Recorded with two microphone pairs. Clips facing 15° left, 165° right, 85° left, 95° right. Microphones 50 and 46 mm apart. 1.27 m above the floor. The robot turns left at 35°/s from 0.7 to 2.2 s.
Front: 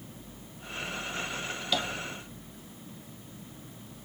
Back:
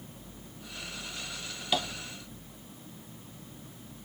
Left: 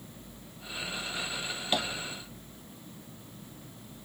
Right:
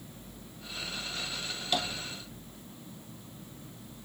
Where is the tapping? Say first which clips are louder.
Back 1 dB, left 1 dB; 130° left, 0.7 m; by 1.9 s 125° left, 0.7 m.